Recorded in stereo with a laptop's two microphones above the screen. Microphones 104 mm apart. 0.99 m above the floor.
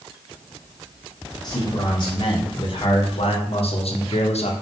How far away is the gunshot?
I don't hear a gunshot.